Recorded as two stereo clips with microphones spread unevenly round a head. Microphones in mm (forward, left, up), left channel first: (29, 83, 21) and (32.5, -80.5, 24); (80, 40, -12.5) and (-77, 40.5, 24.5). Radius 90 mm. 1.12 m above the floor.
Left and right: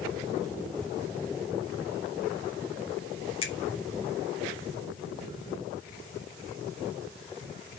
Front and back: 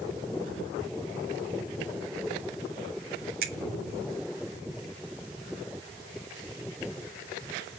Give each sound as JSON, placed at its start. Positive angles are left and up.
{"t": 3.4, "sound": "a finger snap", "azimuth_deg": 150, "distance_m": 2.5}